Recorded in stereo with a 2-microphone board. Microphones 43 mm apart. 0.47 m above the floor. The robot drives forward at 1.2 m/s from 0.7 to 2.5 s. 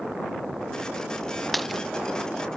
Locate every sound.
1.5 s a dropped coin: centre (ahead or behind)